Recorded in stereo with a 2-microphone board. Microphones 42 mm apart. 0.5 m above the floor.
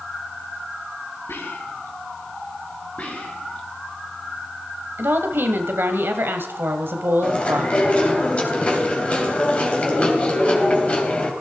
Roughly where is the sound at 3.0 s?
Left.